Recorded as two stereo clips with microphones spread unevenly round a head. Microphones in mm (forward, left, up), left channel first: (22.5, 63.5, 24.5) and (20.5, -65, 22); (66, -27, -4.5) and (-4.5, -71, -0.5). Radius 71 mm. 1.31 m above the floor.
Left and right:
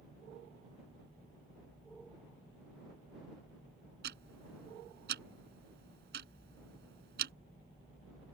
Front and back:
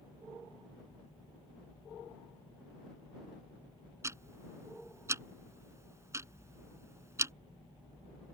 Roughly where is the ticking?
Right.